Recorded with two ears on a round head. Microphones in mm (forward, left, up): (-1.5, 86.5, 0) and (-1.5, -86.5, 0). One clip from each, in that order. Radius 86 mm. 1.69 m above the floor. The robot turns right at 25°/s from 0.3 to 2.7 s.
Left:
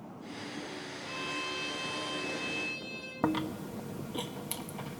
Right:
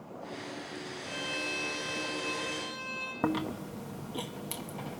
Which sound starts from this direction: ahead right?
A violin, at 1.1 s.